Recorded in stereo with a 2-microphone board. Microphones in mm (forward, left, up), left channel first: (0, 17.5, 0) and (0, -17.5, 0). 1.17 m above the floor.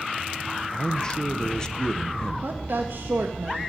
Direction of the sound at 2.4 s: 65° right (ahead or behind).